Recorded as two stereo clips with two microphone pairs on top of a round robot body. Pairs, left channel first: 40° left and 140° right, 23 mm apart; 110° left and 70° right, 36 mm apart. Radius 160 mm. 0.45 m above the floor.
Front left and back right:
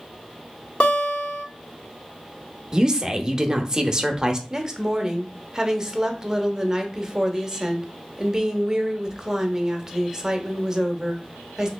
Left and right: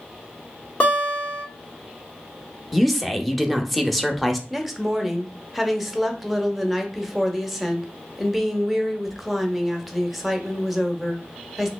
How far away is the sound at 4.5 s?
About 1.0 m.